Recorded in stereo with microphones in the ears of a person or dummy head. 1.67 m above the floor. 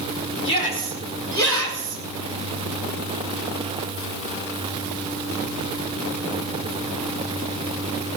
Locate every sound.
0.4 s a shout: 30° left (ahead or behind), 5 m; by 2.0 s 20° left (ahead or behind), 5 m